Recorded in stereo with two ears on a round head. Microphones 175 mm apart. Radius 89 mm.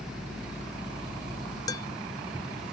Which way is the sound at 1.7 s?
20° left (ahead or behind).